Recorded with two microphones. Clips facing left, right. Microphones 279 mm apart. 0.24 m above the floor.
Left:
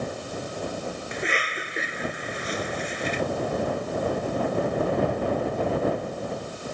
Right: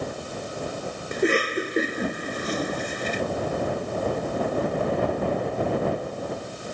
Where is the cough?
50° right (ahead or behind).